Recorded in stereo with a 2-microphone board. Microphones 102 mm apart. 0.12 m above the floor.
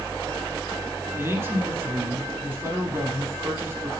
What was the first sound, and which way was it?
A man speaking, 25° right (ahead or behind).